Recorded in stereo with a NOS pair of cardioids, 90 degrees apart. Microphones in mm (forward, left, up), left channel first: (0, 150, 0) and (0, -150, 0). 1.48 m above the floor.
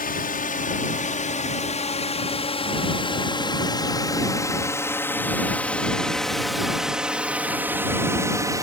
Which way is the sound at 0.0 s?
30° left.